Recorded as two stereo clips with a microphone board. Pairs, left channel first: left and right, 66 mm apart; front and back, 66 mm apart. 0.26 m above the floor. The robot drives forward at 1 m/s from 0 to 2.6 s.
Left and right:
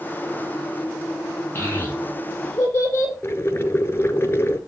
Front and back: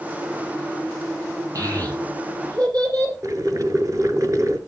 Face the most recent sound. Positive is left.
turn(degrees=145)